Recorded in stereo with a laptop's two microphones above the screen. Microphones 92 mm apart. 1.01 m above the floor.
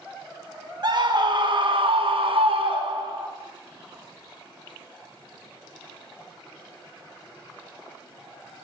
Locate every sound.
0.8 s a scream: 50° right (ahead or behind), 1.7 m